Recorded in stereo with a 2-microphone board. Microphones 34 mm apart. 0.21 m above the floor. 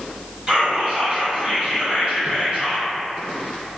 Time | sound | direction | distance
0.5 | whispering | 30° right (ahead or behind) | 1.6 m